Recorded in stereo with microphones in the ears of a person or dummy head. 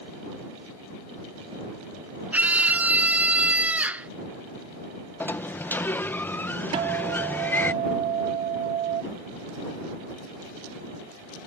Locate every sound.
2.3 s a scream: 5° right (ahead or behind)
5.2 s a sliding door: 10° left (ahead or behind)
6.7 s a guitar: 25° right (ahead or behind)